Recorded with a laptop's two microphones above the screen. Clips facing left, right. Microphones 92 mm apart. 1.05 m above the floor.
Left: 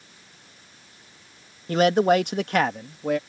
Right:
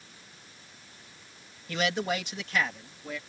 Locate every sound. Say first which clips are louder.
1.7 s a man speaking: left 11 dB; 40° left (ahead or behind); by 3.2 s 70° left (ahead or behind)